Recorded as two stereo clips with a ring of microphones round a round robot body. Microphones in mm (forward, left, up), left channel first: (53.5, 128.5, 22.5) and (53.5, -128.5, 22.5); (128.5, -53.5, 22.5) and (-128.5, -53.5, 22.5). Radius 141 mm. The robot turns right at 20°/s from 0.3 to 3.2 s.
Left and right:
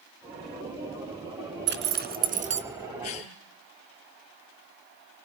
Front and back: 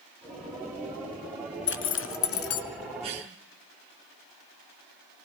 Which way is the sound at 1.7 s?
45° right.